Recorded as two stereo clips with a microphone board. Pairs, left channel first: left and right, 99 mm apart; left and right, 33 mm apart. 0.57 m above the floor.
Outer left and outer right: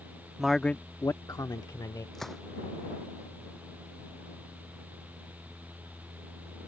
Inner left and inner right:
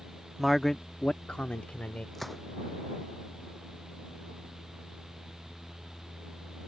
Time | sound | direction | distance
0.4 | a man speaking | 5° right (ahead or behind) | ?
2.1 | a gunshot | 5° left (ahead or behind) | ?